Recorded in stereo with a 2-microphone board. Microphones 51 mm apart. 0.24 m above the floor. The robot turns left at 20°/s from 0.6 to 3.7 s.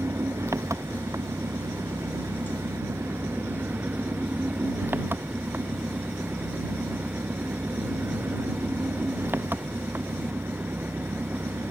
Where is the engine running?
70° right; by 11.7 s 135° right.